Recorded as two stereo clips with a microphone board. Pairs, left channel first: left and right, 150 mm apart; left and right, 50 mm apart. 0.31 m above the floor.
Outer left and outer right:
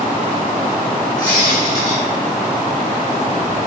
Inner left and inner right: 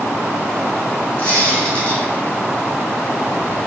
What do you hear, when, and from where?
1.2 s a squeak: 25° left (ahead or behind), 1.1 m